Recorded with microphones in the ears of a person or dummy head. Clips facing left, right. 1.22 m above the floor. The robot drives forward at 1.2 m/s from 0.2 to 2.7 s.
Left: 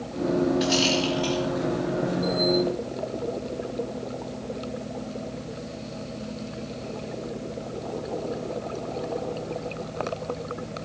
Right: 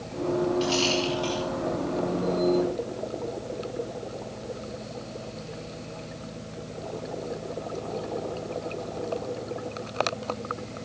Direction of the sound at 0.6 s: 20° left (ahead or behind).